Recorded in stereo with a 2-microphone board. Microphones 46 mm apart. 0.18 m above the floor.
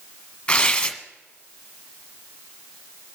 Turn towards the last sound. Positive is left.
turn(degrees=20)  # may be behind; listen again after turning